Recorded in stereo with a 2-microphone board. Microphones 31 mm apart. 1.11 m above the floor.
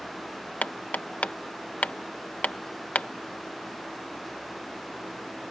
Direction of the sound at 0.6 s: 50° left (ahead or behind).